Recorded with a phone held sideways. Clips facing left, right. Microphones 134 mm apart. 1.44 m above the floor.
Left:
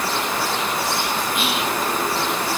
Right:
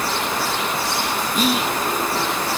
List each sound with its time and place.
1.4 s whispering: 40° right (ahead or behind), 0.8 m